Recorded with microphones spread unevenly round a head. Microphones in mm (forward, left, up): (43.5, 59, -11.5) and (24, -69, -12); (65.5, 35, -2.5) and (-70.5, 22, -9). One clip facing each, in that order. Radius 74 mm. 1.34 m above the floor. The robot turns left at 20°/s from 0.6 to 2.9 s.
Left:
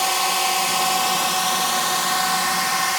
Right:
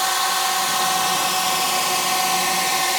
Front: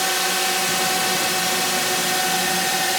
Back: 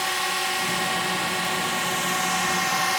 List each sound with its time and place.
0.0 s a drone: 5° left; by 3.0 s 40° right